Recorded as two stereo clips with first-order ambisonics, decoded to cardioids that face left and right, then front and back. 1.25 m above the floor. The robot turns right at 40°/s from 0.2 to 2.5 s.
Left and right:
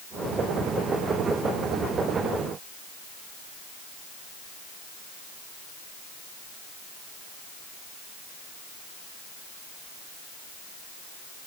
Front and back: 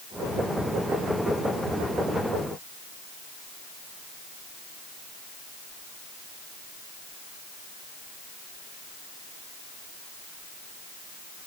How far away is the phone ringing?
No phone ringing in this recording.